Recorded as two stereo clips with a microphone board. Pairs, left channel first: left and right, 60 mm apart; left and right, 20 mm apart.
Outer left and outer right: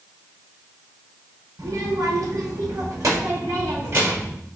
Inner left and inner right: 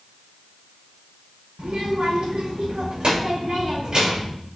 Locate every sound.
1.6 s a child speaking: 80° right, 1.9 m; by 4.3 s 50° right (ahead or behind), 3 m